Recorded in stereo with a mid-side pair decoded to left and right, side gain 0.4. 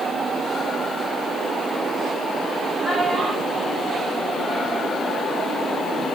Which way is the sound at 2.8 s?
50° right.